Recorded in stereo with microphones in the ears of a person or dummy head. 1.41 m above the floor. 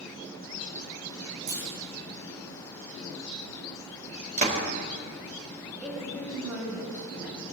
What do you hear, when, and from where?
1.5 s a clunk: 60° right (ahead or behind), 9.5 m
4.4 s a door slam: 50° right (ahead or behind), 4 m
5.8 s a woman speaking: centre (ahead or behind), 9.5 m